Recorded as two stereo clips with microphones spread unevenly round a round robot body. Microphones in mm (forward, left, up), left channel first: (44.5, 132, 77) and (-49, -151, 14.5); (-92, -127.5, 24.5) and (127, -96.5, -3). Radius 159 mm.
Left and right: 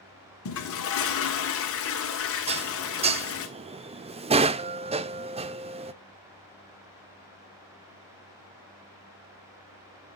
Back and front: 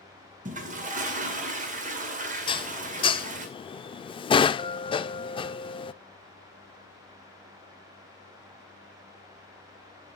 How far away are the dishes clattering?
About 0.5 m.